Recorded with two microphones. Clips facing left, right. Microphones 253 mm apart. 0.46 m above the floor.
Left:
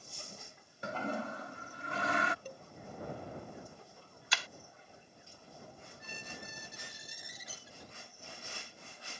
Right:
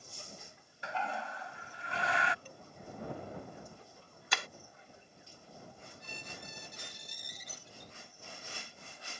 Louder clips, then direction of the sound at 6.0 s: Left 1 dB; 10° left (ahead or behind).